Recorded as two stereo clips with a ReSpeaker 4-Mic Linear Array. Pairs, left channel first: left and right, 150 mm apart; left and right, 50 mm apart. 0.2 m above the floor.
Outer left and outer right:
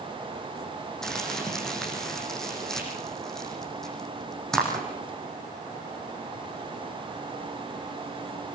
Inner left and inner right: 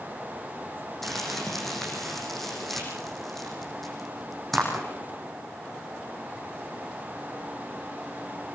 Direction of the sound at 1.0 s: 5° left (ahead or behind).